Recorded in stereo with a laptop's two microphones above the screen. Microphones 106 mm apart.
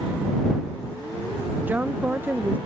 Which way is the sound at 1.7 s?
15° right (ahead or behind).